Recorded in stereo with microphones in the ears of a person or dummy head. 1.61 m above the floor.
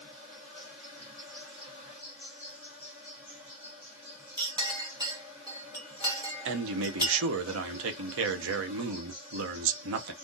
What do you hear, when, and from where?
0.0 s an insect: 25° right (ahead or behind), 1.0 m
4.4 s a clink: 20° right (ahead or behind), 1.1 m
6.5 s a man speaking: 70° right (ahead or behind), 0.6 m